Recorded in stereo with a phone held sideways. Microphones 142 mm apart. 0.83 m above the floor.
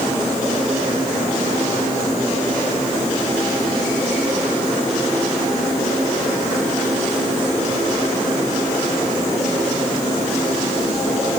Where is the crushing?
No crushing in this recording.